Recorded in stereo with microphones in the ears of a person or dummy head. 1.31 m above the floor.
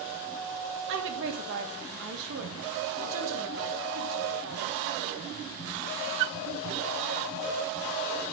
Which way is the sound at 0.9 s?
65° right (ahead or behind).